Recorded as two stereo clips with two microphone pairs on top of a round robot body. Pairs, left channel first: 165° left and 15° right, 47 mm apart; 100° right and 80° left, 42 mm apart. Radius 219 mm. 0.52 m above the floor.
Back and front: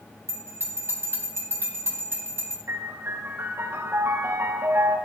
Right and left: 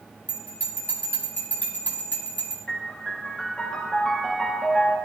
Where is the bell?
55° right, 4 m.